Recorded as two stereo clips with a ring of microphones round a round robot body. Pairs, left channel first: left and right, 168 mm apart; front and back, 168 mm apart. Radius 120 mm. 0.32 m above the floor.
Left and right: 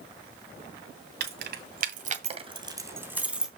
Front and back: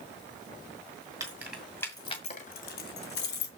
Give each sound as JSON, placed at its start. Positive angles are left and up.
{"t": 1.2, "sound": "keys jangling", "azimuth_deg": -105, "distance_m": 2.0}